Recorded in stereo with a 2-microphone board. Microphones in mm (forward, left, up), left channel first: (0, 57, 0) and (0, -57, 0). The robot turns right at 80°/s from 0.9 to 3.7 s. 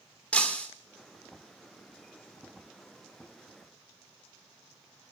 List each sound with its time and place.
0.3 s breaking glass: 10° left (ahead or behind), 2 m